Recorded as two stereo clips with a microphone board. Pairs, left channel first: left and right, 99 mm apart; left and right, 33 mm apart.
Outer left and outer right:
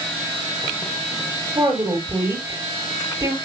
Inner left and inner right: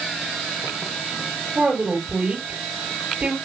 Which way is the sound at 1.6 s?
40° right (ahead or behind).